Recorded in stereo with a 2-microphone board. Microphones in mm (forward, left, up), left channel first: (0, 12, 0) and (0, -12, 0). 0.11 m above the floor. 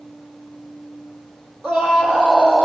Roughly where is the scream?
Right.